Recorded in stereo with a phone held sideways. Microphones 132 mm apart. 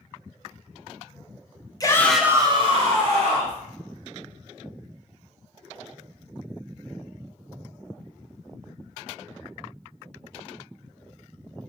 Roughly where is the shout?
Left.